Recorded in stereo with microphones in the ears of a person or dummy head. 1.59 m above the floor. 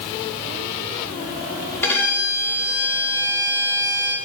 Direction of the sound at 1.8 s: 10° left (ahead or behind).